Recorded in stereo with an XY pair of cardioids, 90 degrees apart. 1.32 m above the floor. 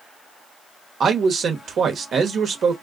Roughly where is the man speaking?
Ahead right.